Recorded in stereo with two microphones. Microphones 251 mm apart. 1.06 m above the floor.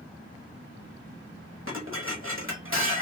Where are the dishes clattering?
55° right (ahead or behind), 1.1 m.